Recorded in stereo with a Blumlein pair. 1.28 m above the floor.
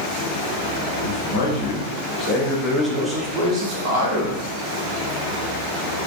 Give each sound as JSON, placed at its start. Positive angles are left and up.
{"t": 1.0, "sound": "a man speaking", "azimuth_deg": 60, "distance_m": 1.1}